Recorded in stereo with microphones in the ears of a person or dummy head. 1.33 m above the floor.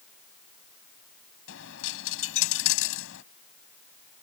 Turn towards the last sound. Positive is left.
turn(degrees=75)  # may be behind; listen again after turning